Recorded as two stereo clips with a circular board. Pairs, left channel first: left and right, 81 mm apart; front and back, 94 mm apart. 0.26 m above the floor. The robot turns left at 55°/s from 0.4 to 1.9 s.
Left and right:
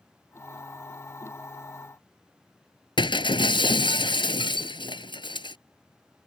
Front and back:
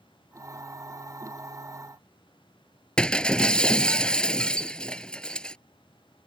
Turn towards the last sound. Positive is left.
turn(degrees=80)